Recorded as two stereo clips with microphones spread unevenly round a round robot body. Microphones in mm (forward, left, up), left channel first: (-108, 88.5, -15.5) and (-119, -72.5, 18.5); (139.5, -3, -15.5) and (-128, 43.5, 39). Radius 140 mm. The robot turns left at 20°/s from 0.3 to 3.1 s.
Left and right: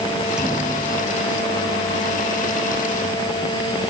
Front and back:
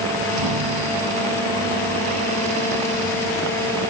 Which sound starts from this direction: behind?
A thud, at 0.4 s.